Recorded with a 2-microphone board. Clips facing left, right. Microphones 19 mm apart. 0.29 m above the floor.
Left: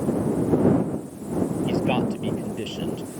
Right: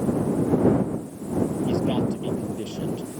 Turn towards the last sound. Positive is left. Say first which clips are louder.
# left 1 dB
turn(degrees=75)  # may be behind; listen again after turning